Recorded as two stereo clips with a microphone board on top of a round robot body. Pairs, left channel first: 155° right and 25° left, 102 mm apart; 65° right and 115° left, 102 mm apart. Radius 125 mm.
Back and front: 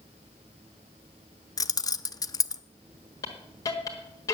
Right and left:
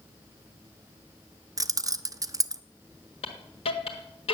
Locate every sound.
1.6 s keys jangling: 160° left, 0.5 m
3.2 s a hiss: 100° right, 1.5 m